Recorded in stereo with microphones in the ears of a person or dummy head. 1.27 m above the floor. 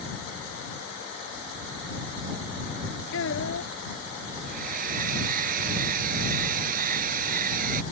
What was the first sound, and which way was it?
A child speaking, 85° left.